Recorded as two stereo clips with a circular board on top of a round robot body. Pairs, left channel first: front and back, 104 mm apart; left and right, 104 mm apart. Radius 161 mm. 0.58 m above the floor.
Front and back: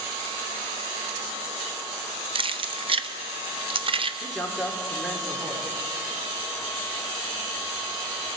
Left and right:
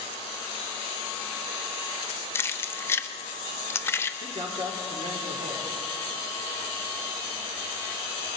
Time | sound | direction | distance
2.4 | keys jangling | 155° left | 0.8 m
4.2 | a man speaking | 90° right | 1.9 m